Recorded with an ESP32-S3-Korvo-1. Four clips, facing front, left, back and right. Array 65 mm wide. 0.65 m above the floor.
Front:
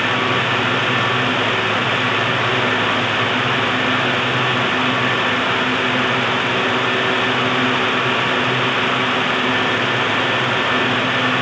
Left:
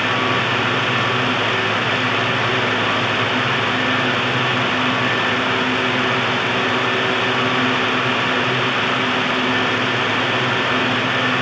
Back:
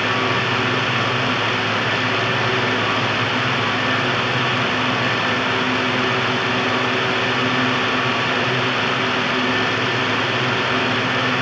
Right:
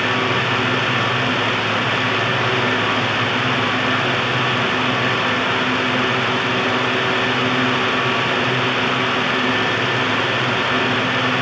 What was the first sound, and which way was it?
Only background noise.